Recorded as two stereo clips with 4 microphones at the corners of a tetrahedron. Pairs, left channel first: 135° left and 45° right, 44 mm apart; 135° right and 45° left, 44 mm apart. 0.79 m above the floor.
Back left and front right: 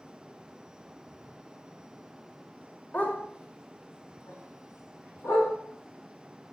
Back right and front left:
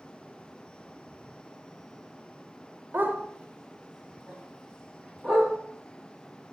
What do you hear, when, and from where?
2.9 s a dog barking: 85° left, 1.3 m; by 5.5 s 145° left, 4 m